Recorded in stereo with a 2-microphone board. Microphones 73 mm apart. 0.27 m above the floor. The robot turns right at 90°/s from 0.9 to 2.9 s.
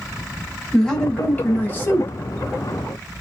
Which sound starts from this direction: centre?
A man speaking, at 0.7 s.